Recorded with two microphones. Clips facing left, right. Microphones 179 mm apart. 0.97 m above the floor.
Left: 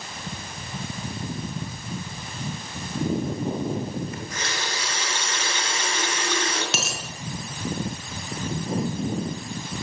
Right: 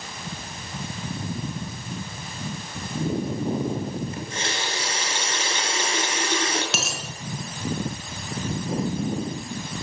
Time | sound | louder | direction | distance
4.1 | a running tap | right 2 dB | 30° right (ahead or behind) | 9.5 m
6.7 | a dropped coin | even | centre (ahead or behind) | 6.5 m